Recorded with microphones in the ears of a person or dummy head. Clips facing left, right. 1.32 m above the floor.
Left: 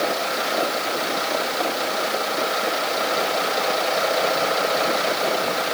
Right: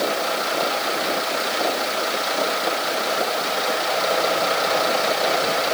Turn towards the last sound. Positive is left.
No sound to turn to.